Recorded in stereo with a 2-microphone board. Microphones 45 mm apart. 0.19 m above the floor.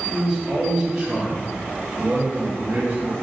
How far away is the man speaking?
About 2.5 m.